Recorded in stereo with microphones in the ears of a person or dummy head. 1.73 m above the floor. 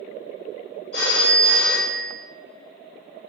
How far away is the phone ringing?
About 1.6 m.